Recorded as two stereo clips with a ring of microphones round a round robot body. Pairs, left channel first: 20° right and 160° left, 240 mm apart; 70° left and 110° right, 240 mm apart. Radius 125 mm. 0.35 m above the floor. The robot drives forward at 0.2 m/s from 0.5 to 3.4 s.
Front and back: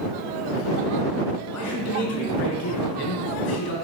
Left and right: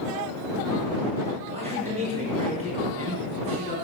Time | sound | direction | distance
1.5 | a man speaking | 45° right | 4.5 m